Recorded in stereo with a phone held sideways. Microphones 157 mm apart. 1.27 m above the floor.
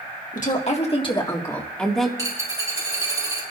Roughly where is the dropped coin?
Right.